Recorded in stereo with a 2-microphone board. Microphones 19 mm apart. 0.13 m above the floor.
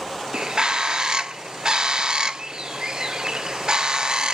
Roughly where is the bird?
Right.